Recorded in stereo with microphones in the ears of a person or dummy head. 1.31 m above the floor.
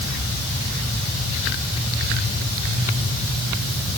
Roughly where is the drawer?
No drawer in this recording.